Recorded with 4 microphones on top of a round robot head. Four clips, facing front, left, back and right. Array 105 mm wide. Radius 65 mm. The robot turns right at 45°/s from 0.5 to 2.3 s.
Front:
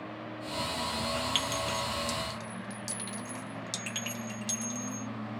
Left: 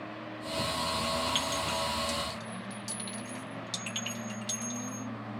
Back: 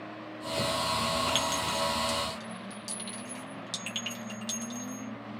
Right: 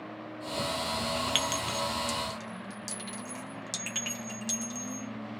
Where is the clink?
95° right, 0.8 m; by 5.1 s 50° right, 0.8 m.